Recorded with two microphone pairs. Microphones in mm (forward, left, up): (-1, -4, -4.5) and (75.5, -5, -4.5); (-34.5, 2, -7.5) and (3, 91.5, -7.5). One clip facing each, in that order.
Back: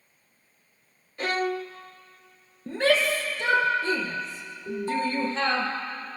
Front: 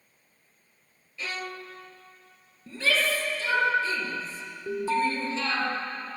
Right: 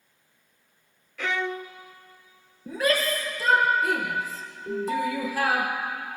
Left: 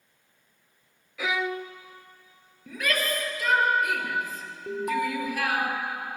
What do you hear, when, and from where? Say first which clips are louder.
1.2 s a violin: back 9 dB, even; 145° left, 0.6 m
2.7 s a shout: back 4 dB, right 4 dB; 165° right, 3.5 m
4.7 s an alarm: front 2 dB, right 1 dB; 15° left, 1.7 m